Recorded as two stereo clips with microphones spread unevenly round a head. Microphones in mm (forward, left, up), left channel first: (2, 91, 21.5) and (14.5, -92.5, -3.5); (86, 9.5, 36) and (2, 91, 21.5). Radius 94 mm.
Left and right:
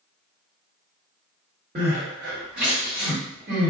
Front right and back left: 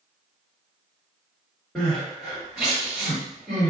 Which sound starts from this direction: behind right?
Crying, at 1.8 s.